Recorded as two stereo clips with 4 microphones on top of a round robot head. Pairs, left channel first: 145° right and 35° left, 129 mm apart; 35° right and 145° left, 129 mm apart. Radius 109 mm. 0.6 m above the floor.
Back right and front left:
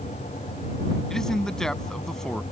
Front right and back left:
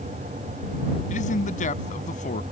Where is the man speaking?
60° right.